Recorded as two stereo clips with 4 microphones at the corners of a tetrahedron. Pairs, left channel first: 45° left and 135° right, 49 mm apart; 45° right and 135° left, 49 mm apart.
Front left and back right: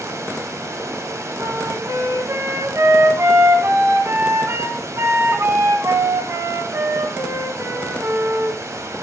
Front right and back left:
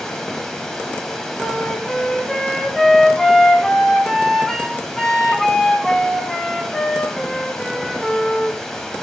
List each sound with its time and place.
0.0 s running water: 125° right, 2 m
1.4 s a flute: 125° right, 1.8 m